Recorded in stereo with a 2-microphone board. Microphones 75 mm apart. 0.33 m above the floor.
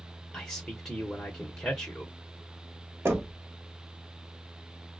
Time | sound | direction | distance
0.3 | a man speaking | 10° left (ahead or behind) | 0.9 m
3.0 | knocking | 30° right (ahead or behind) | 0.9 m